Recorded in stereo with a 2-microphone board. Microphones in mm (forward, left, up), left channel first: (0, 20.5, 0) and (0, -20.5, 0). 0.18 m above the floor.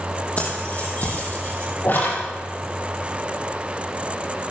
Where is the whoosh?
55° left (ahead or behind), 8 m.